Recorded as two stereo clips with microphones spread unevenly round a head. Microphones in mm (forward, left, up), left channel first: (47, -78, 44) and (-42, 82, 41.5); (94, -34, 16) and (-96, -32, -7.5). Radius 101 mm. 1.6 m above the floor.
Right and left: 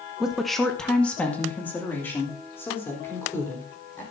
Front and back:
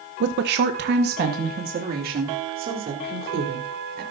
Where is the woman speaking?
155° right, 0.9 m; by 4.0 s 140° right, 4.5 m.